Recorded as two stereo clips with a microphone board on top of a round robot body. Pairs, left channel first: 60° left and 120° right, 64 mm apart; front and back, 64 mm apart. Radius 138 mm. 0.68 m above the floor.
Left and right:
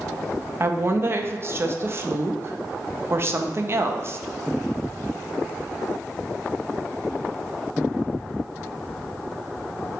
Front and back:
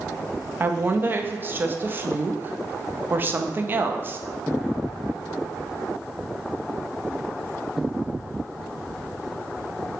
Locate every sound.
0.6 s a woman speaking: 140° right, 0.6 m